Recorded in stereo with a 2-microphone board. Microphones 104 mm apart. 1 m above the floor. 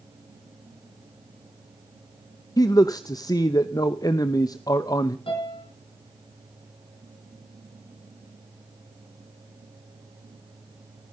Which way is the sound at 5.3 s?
55° left (ahead or behind).